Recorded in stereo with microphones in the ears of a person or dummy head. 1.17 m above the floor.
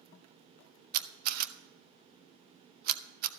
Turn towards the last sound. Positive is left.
turn(degrees=-50)  # may be behind; listen again after turning